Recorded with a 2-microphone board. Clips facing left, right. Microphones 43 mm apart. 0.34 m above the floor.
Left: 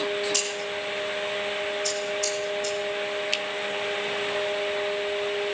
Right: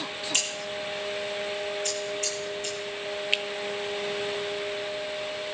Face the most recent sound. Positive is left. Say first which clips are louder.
# right 5 dB
turn(degrees=-20)  # may be behind; listen again after turning